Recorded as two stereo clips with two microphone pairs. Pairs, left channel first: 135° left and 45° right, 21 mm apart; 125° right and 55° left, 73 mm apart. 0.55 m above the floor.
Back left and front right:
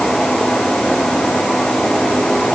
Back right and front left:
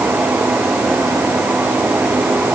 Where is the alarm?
I don't hear an alarm.